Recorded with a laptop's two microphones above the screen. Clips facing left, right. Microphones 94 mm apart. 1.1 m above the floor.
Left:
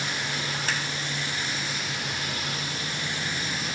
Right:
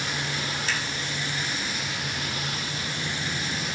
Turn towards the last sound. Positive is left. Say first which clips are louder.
# even
turn(degrees=50)  # may be behind; listen again after turning